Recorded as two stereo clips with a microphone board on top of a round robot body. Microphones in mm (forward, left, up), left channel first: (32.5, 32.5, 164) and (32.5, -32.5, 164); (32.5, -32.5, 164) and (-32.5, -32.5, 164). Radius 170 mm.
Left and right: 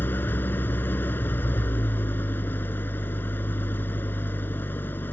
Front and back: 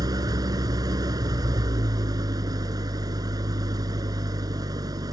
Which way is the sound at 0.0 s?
155° left.